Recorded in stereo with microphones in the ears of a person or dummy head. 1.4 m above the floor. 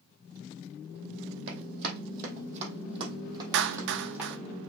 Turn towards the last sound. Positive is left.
turn(degrees=-60)  # may be behind; listen again after turning